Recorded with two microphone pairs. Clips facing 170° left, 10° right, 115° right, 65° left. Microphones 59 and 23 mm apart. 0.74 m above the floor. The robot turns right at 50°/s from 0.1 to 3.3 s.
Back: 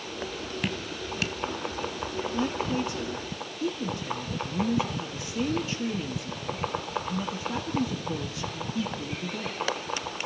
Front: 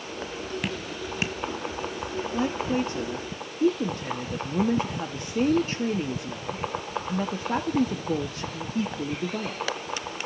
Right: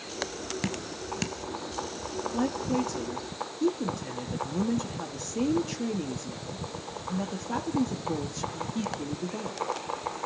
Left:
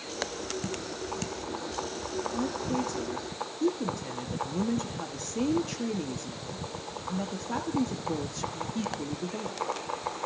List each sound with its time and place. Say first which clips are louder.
0.6 s dripping: front 1 dB, right 1 dB; 95° right, 0.8 m; by 1.4 s 55° right, 0.8 m
2.3 s a woman speaking: front 3 dB, right 4 dB; 70° right, 1.3 m; by 9.6 s 25° right, 1.3 m